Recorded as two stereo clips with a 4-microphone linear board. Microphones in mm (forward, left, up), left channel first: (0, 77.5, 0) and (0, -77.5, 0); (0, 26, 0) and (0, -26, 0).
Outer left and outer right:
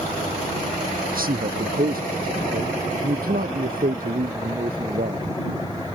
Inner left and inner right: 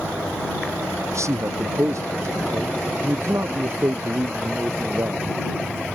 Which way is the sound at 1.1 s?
70° right (ahead or behind).